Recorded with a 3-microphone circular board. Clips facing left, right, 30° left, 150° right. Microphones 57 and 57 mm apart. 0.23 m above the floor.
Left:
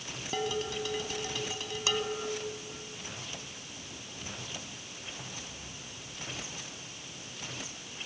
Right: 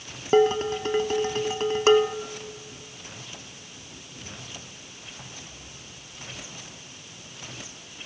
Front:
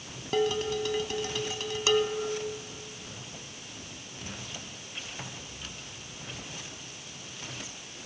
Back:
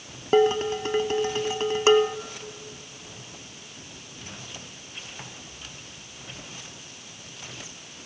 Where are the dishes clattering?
110° right, 0.9 m.